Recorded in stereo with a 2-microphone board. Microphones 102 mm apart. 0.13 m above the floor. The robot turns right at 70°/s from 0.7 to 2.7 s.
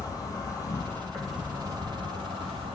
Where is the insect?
140° left, 0.8 m; by 2.8 s 80° right, 0.8 m.